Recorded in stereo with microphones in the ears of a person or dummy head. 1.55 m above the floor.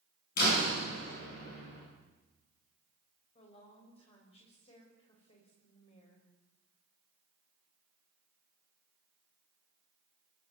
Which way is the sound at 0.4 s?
60° left (ahead or behind).